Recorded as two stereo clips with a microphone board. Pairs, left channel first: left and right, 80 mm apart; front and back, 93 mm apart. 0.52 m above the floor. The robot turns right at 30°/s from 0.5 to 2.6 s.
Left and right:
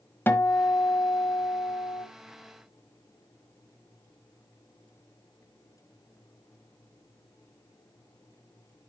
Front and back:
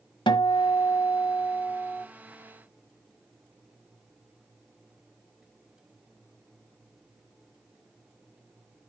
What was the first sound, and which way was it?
A guitar, 25° left.